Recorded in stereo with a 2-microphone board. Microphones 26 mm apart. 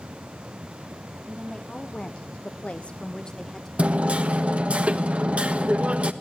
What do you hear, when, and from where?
1.3 s a woman speaking: 20° left (ahead or behind), 2 m; by 3.7 s 25° left (ahead or behind), 2 m
3.8 s hammering: 60° right (ahead or behind), 1.3 m